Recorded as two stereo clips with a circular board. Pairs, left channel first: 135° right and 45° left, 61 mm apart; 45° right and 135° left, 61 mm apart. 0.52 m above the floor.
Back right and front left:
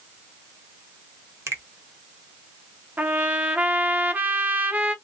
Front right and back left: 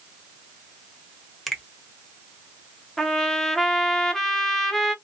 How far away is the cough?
I don't hear a cough.